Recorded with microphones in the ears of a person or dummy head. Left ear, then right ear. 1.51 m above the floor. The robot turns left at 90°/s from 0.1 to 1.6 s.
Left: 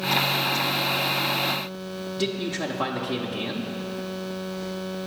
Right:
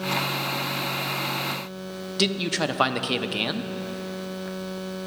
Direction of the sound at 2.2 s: 50° right (ahead or behind).